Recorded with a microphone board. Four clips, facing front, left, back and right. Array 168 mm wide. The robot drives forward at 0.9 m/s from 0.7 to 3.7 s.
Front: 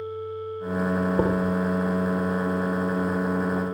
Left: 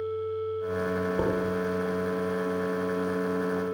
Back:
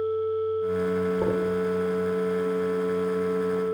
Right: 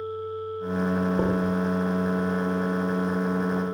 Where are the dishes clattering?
5° right, 5.5 m.